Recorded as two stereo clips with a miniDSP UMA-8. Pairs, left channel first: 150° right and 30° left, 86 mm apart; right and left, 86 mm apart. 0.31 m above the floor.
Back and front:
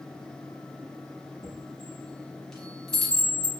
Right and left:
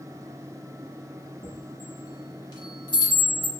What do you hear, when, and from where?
1.4 s a chime: 65° right, 0.8 m